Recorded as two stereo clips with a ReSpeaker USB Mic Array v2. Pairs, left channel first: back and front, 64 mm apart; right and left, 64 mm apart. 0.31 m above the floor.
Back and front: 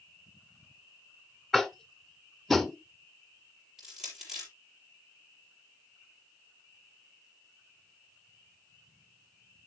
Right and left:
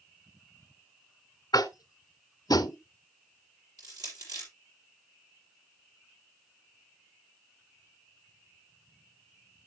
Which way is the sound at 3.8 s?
80° left.